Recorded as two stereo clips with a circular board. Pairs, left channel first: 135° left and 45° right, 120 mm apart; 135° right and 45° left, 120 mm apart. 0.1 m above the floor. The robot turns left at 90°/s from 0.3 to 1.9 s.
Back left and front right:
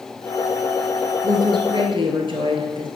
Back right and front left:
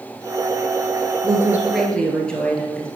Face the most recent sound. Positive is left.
turn(degrees=-55)